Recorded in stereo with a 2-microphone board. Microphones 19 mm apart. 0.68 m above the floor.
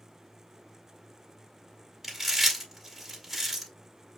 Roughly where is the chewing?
Centre.